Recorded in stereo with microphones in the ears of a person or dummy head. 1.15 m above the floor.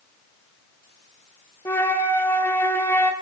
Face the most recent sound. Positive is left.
turn(degrees=10)  # may be behind; listen again after turning